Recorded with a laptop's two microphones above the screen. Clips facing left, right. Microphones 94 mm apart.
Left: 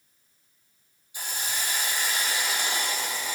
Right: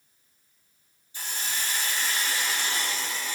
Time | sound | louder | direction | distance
1.1 | a hiss | left 1 dB | 15° left (ahead or behind) | 1.0 m